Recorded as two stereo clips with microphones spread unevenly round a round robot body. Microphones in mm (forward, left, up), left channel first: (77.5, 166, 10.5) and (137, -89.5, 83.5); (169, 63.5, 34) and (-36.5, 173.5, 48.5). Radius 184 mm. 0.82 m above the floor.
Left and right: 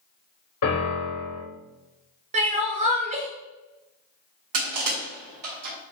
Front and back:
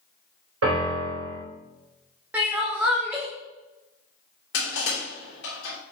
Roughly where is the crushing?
Right.